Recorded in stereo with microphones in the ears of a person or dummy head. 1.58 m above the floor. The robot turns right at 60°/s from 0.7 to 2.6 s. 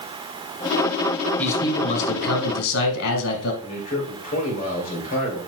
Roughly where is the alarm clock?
No alarm clock in this recording.